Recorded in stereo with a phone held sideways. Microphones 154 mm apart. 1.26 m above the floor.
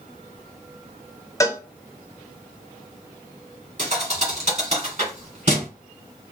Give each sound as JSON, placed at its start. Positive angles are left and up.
{"t": 1.4, "sound": "a cowbell", "side_deg": 20, "distance_m": 0.8}
{"t": 3.8, "sound": "a thud", "side_deg": -55, "distance_m": 2.0}